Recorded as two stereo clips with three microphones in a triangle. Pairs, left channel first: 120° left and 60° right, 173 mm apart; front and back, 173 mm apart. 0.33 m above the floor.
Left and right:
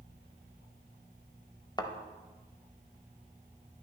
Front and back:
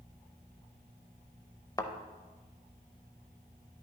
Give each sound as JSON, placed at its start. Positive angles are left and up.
{"t": 1.8, "sound": "a thud", "azimuth_deg": 65, "distance_m": 0.6}